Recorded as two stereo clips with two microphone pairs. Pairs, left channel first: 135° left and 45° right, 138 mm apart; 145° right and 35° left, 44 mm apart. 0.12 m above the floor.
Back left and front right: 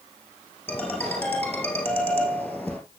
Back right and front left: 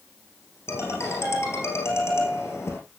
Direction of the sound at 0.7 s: 145° right.